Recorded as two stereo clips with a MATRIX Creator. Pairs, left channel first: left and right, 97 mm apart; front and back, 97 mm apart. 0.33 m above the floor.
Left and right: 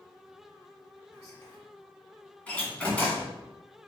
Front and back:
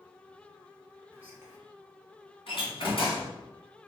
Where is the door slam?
15° left, 1.7 m.